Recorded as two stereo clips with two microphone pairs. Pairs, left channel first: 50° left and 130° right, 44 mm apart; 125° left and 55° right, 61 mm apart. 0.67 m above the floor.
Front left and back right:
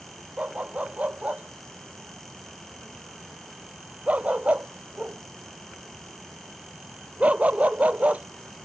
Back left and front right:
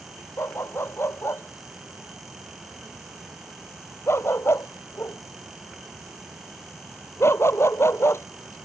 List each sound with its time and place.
0.4 s a dog barking: 170° left